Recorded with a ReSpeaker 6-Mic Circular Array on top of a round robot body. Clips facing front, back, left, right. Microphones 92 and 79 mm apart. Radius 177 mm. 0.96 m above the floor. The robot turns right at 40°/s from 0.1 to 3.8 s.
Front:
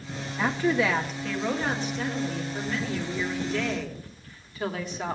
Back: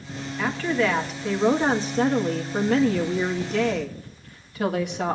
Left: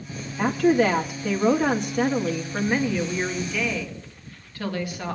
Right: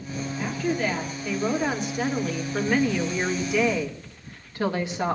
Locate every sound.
0.4 s a woman speaking: 65° left, 2.5 m; by 5.2 s 155° right, 2.5 m